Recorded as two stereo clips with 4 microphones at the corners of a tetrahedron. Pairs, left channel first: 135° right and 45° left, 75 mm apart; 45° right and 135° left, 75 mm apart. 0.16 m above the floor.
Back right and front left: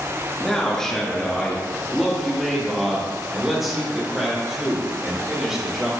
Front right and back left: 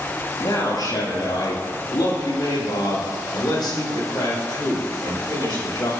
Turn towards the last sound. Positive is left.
turn(degrees=-40)